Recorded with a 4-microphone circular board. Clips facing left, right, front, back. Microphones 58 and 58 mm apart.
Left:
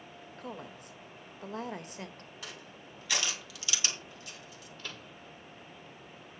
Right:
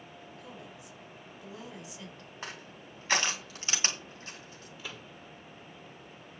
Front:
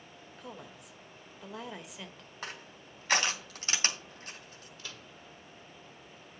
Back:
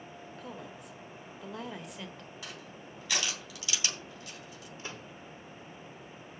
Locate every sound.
0.4 s a woman speaking: 90° left, 1.5 m
2.4 s crushing: 45° right, 2.5 m
4.8 s a microwave: 160° right, 1.0 m